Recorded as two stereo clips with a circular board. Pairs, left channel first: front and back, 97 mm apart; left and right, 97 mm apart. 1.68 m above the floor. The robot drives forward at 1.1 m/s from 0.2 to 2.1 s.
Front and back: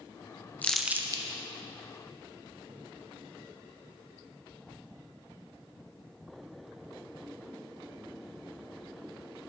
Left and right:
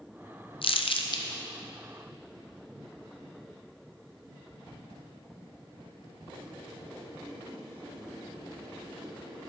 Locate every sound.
0.6 s crumpling: 75° left, 0.6 m; by 1.2 s 135° left, 0.8 m